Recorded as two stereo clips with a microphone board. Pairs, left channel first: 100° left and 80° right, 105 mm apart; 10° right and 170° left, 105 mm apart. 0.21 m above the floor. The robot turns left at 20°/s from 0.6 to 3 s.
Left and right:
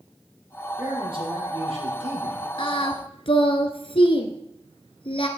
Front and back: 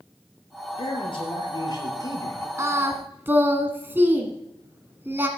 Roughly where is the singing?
Left.